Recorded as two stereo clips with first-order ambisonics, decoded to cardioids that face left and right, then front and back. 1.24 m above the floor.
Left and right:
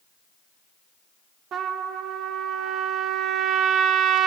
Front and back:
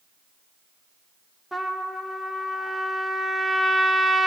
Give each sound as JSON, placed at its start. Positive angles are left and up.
{"t": 1.5, "sound": "a trumpet", "azimuth_deg": -95, "distance_m": 0.7}